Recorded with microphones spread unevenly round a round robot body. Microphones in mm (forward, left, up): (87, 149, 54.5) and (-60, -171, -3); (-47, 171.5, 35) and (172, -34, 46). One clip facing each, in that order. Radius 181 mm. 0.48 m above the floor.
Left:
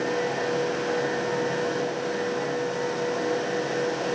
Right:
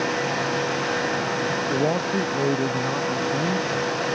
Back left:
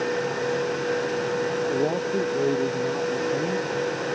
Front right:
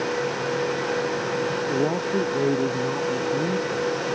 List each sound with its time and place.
1.7 s a man speaking: 120° right